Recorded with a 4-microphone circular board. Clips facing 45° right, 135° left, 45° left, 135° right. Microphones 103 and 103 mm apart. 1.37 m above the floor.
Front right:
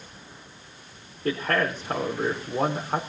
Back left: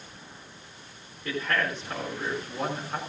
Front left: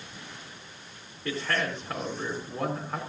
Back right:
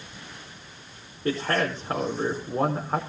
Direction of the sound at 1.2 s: 85° right.